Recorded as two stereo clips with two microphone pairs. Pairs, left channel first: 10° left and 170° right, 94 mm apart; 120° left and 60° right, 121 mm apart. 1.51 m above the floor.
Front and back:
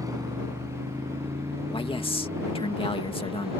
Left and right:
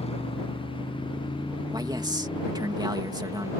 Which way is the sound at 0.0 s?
140° left.